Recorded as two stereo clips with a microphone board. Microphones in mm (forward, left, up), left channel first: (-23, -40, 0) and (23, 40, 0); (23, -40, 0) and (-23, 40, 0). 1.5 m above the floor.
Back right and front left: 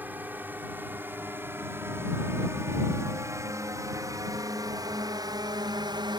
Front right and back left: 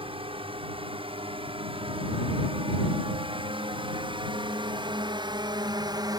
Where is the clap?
I don't hear a clap.